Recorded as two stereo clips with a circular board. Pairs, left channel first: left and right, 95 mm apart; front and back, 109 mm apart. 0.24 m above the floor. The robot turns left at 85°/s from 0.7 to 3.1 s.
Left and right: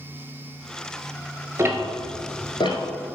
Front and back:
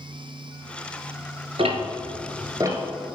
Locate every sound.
1.6 s ticking: 150° right, 0.8 m; by 2.8 s 110° left, 0.8 m